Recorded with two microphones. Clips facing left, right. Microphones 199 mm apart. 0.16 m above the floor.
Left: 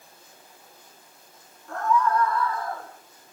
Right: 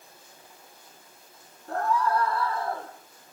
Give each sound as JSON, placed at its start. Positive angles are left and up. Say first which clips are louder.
{"t": 1.7, "sound": "a scream", "louder": "left 2 dB", "side_deg": -40, "distance_m": 5.5}